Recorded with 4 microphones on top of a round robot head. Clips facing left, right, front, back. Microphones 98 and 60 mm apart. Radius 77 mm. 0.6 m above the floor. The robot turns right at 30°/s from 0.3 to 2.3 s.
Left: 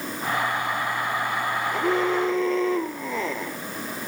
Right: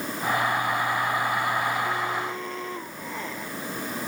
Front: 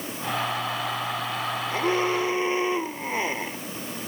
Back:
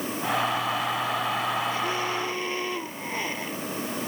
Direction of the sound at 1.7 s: 50° left.